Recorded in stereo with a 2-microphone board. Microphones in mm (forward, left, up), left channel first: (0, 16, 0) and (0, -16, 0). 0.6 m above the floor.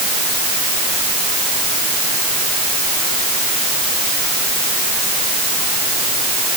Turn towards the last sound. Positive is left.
No sound to turn to.